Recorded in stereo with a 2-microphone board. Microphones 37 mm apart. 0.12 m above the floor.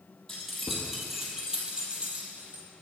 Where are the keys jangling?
10° left (ahead or behind), 2.5 m; by 2.6 s 45° right (ahead or behind), 2.5 m.